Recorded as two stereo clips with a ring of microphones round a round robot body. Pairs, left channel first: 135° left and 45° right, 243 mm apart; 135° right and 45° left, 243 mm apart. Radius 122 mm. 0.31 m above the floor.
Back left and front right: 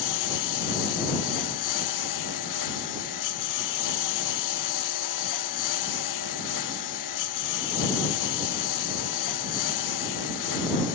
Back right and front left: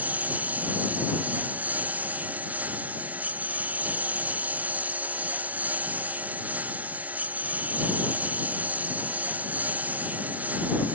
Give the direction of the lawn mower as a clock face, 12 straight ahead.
8 o'clock.